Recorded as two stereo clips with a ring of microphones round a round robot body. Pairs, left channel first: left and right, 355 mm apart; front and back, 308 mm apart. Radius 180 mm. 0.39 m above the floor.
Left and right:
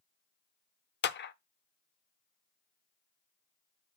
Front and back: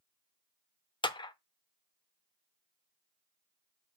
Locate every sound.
1.0 s a clap: 65° left, 0.7 m